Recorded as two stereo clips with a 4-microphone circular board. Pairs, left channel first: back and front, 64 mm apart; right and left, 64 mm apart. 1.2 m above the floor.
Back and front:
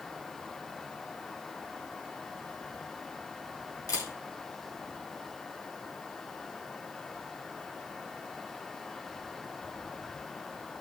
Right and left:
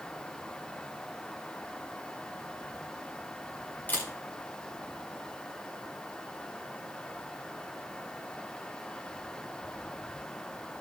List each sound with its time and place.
3.9 s a camera shutter: 150° right, 4 m